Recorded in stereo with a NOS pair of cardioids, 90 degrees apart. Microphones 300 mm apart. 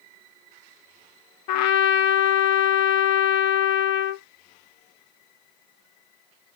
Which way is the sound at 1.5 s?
70° left.